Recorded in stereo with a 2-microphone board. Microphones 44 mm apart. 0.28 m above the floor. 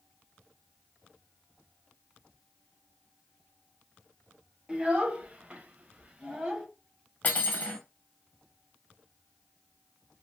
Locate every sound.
4.7 s a child speaking: 25° right (ahead or behind), 0.8 m; by 6.7 s 20° right (ahead or behind), 0.8 m
7.2 s cutlery clinking: 35° left (ahead or behind), 0.8 m